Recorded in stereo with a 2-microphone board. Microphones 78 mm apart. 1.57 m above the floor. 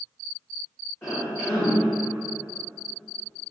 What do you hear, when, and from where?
1.0 s a cough: 35° left (ahead or behind), 0.9 m